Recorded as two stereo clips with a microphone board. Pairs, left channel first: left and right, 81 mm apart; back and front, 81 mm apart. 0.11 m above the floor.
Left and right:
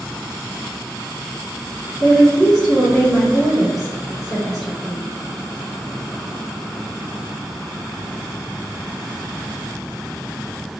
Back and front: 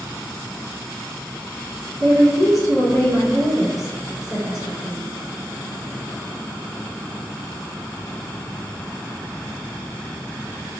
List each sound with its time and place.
2.0 s a woman speaking: straight behind, 1.8 m